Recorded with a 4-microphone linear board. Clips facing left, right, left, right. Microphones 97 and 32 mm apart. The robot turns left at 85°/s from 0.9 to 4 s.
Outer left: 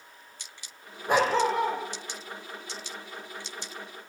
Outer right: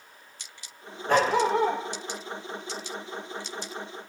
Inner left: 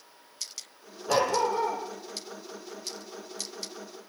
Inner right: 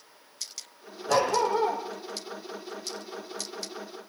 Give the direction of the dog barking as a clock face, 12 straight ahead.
11 o'clock.